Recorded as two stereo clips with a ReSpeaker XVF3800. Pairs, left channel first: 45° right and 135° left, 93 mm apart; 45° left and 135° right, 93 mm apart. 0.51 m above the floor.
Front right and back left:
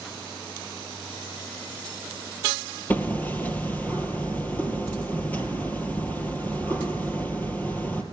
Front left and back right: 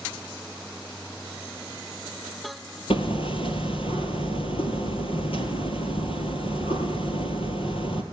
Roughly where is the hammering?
Ahead left.